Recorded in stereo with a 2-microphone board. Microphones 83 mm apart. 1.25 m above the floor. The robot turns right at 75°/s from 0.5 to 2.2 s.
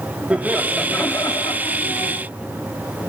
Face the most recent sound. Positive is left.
turn(degrees=110)